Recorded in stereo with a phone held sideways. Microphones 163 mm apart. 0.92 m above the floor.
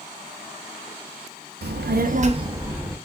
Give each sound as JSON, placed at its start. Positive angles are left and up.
{"t": 1.6, "sound": "a child speaking", "side_deg": -85, "distance_m": 0.7}